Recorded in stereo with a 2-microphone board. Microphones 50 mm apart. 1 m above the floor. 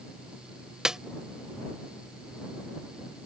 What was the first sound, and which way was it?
A snare drum, 15° right (ahead or behind).